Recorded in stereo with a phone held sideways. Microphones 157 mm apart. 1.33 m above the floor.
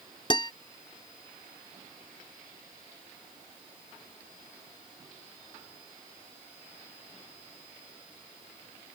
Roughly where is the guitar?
Left.